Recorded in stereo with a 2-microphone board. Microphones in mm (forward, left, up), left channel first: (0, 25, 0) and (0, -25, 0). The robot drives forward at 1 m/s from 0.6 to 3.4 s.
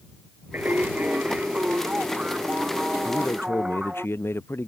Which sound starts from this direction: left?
A man speaking, at 3.0 s.